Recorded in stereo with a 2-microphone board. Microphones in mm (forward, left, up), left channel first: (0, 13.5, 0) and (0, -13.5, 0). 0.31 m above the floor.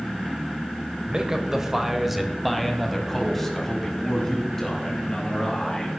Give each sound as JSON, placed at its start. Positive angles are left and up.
{"t": 1.1, "sound": "a man speaking", "side_deg": -30, "distance_m": 1.2}